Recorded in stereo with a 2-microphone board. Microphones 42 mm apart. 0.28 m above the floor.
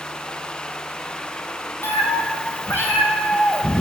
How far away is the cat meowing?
About 1.0 m.